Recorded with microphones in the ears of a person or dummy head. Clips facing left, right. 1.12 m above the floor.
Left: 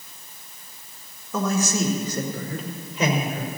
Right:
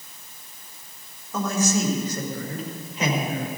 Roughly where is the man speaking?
Left.